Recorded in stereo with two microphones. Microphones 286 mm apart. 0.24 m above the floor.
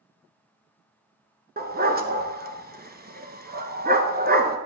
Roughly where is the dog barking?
Right.